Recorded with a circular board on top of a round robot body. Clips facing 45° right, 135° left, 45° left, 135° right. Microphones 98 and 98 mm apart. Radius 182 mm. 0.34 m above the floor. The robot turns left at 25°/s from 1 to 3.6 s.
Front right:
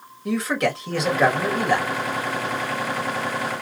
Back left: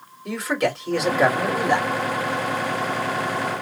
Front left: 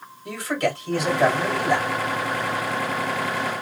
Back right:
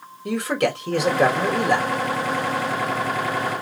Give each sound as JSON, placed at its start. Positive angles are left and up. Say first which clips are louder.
{"t": 0.2, "sound": "a man speaking", "louder": "front right 1 dB, back right 3 dB", "azimuth_deg": -135, "distance_m": 2.5}